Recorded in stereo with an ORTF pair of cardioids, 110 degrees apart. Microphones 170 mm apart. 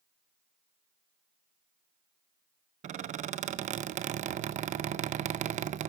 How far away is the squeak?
About 0.6 m.